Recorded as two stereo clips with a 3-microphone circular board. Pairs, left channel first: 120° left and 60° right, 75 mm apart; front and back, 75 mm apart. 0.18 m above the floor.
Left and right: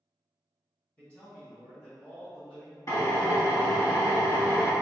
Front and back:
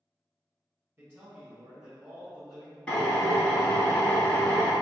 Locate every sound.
1.0 s a man speaking: 170° left, 1.8 m; by 2.8 s 85° left, 1.7 m
2.9 s a drill: 80° left, 1.4 m